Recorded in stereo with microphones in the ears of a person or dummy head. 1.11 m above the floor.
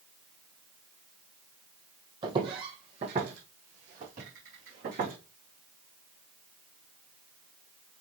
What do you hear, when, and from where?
2.2 s footsteps: 30° right (ahead or behind), 3 m; by 5.2 s 45° right (ahead or behind), 5 m